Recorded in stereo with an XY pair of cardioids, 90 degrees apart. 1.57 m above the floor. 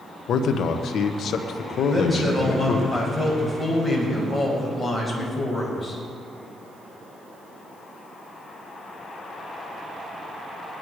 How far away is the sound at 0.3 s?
About 1.3 m.